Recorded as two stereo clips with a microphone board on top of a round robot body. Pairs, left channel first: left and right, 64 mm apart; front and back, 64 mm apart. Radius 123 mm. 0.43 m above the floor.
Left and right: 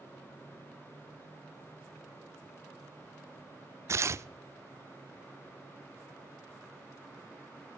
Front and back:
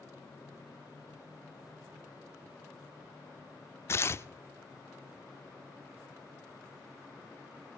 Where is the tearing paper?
45° right, 0.5 m.